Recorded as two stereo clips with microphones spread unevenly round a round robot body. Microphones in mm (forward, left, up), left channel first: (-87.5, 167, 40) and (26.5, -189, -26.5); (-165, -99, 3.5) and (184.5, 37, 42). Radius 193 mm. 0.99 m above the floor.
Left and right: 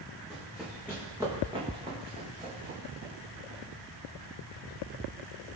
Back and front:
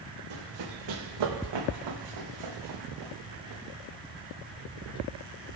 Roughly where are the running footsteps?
Ahead left.